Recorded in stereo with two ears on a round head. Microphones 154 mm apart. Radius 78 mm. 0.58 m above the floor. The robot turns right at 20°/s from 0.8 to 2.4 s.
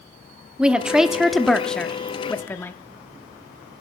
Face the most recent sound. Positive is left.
turn(degrees=10)  # may be behind; listen again after turning